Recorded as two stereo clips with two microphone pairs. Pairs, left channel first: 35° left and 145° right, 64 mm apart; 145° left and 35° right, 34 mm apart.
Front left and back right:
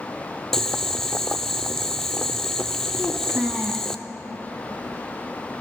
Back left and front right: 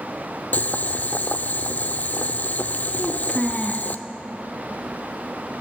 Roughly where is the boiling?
Behind left.